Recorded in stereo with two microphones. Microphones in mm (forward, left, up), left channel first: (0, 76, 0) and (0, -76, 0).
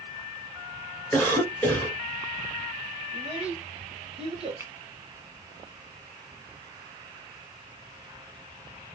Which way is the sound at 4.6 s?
20° right (ahead or behind).